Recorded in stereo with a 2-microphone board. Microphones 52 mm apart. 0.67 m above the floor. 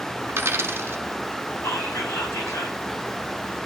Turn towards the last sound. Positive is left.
turn(degrees=75)  # may be behind; listen again after turning